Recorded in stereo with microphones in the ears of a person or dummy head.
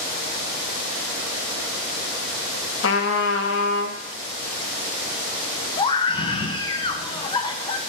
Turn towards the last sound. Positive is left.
turn(degrees=25)  # may be behind; listen again after turning